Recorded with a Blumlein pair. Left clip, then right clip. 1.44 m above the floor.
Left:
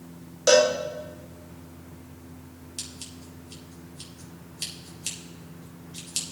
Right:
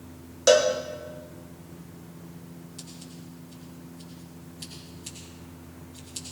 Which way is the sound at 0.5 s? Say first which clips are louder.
Left 1 dB; 5° right.